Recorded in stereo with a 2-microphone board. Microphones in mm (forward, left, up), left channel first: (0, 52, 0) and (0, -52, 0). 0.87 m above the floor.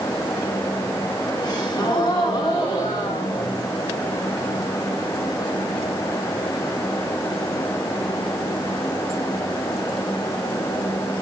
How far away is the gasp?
About 5 m.